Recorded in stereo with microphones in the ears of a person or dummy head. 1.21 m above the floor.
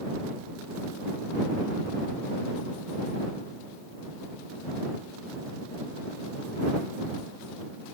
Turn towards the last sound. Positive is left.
No sound to turn to.